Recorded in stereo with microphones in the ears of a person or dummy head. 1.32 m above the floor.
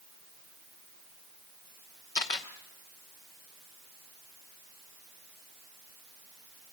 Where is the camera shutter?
15° left (ahead or behind), 0.9 m.